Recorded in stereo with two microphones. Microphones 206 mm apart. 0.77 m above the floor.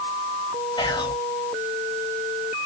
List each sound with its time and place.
0.8 s whispering: 20° left (ahead or behind), 0.7 m